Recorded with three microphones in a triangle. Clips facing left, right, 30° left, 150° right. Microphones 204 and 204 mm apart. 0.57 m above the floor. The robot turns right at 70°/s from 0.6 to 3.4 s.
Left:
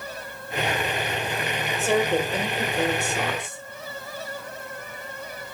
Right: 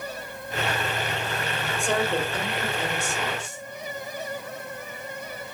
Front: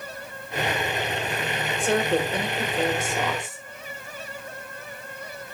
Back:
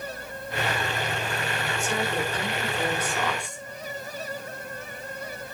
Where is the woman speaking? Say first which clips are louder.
Left 4 dB, front 7 dB; straight ahead, 2.5 m; by 3.6 s 115° left, 2.5 m.